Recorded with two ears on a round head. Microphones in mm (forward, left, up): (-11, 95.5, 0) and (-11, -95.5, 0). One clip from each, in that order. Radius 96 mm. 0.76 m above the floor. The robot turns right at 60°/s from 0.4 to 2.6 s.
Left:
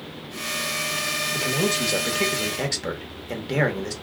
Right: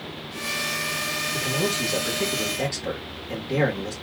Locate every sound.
1.3 s a man speaking: 20° left, 1.2 m; by 3.9 s 100° left, 1.2 m